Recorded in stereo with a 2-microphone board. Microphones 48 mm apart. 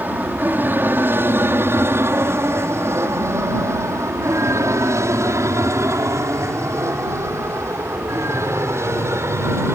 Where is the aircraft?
40° right (ahead or behind); by 9.8 s 60° right (ahead or behind).